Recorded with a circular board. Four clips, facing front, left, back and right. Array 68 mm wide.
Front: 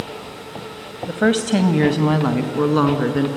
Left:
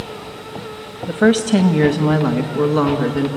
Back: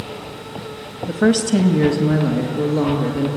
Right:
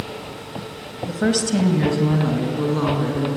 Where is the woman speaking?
75° left, 1.1 m; by 3.3 s 30° left, 3 m.